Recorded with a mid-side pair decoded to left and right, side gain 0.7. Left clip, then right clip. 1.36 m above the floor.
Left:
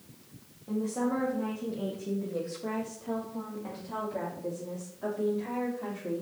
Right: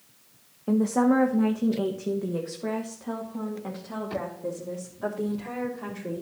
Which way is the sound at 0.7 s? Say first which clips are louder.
Right 8 dB; 55° right.